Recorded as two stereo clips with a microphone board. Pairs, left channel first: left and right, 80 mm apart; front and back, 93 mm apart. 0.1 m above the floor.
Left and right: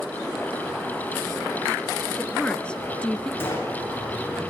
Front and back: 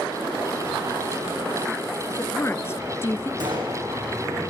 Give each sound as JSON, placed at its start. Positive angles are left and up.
{"t": 2.1, "sound": "a woman speaking", "azimuth_deg": 25, "distance_m": 1.4}
{"t": 3.4, "sound": "a gunshot", "azimuth_deg": 150, "distance_m": 8.5}